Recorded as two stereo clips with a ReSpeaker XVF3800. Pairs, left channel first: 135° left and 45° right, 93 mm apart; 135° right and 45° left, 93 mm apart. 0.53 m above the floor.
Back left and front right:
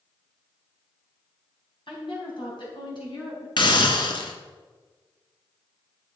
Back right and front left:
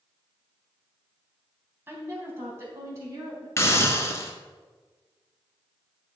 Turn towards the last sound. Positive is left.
turn(degrees=165)